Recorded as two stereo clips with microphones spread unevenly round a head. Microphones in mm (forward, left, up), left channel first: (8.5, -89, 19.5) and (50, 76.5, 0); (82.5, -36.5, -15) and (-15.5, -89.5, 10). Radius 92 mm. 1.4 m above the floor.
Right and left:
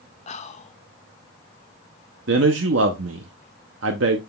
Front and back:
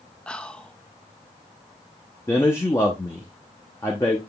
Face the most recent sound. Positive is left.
turn(degrees=105)